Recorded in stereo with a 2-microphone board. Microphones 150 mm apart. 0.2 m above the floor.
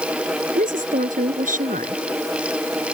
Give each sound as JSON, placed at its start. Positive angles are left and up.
{"t": 0.6, "sound": "a woman speaking", "side_deg": -65}